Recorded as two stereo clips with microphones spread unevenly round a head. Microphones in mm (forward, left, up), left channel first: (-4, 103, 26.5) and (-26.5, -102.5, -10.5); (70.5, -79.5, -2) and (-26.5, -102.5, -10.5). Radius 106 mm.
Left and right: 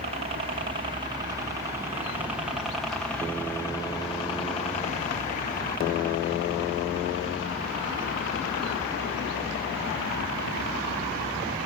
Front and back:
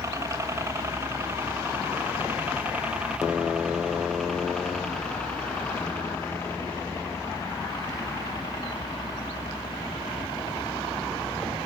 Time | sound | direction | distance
0.0 | a helicopter | 125° right | ?